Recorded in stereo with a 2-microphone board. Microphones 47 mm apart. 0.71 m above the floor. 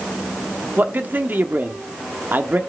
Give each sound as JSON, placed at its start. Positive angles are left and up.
{"t": 0.8, "sound": "a man speaking", "side_deg": -45, "distance_m": 1.2}